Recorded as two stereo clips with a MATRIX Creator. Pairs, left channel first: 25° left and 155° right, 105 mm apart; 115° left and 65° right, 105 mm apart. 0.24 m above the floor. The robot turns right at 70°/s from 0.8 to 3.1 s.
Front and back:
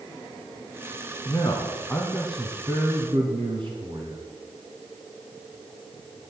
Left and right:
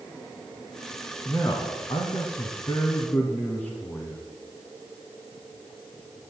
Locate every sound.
1.2 s a man speaking: 55° left, 2 m; by 4.2 s straight behind, 2 m